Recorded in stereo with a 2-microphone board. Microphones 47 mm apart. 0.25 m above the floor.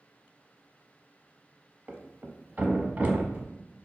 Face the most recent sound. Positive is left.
turn(degrees=-35)  # may be behind; listen again after turning